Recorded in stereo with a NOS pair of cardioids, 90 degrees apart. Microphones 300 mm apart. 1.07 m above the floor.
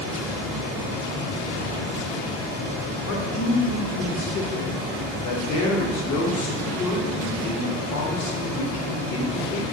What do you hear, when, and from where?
0.0 s a fan: 65° left, 1.6 m
3.1 s a man speaking: 70° left, 0.8 m